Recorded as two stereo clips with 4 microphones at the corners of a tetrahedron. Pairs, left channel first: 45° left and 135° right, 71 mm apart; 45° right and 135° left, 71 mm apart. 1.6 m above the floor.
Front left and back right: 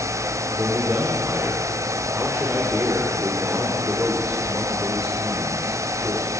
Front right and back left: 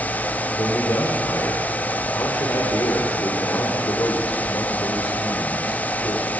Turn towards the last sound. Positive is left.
turn(degrees=-75)